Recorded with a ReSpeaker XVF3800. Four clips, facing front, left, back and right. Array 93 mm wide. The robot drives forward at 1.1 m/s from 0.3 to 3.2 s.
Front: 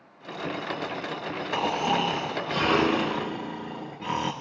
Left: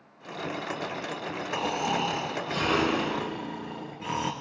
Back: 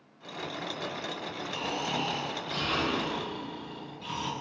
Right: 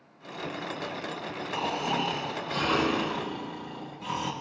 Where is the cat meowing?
No cat meowing in this recording.